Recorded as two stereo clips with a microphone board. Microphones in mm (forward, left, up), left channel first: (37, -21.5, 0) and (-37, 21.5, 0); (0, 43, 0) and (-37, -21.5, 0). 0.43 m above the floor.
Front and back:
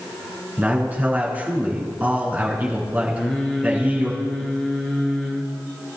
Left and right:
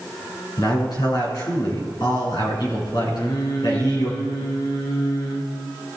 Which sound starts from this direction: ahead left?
Singing, at 3.1 s.